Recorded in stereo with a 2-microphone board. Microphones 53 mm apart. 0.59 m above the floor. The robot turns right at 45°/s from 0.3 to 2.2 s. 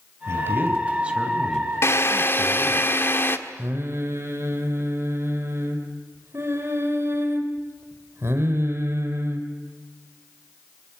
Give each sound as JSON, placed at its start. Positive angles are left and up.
{"t": 0.3, "sound": "a man speaking", "azimuth_deg": -55, "distance_m": 3.0}
{"t": 1.8, "sound": "a drill", "side_deg": 55, "distance_m": 1.5}
{"t": 3.6, "sound": "singing", "side_deg": -50, "distance_m": 4.0}